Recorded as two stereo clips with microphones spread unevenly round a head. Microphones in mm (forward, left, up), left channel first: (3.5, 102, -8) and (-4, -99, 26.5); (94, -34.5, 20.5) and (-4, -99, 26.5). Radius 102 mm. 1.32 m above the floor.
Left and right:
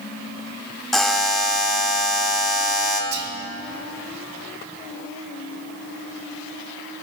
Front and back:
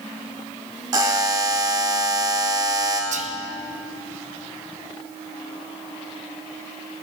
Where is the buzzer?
165° right, 1.0 m.